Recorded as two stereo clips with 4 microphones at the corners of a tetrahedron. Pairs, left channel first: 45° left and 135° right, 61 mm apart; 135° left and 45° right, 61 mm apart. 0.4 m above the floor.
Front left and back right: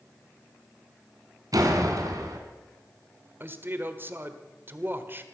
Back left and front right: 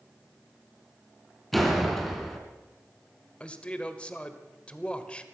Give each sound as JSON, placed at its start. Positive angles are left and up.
{"t": 1.5, "sound": "a door slam", "azimuth_deg": -135, "distance_m": 2.5}
{"t": 3.4, "sound": "a man speaking", "azimuth_deg": -165, "distance_m": 1.4}